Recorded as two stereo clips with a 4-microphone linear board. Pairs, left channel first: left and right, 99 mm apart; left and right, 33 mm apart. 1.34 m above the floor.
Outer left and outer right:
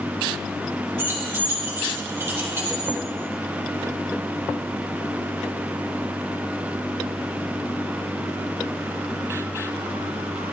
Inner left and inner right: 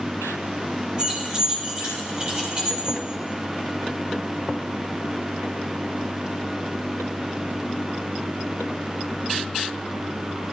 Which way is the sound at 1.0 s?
25° right (ahead or behind).